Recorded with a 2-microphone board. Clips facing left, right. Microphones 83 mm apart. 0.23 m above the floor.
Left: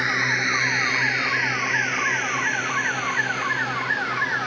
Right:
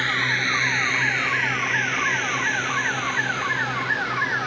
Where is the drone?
15° left (ahead or behind); by 4.5 s centre (ahead or behind).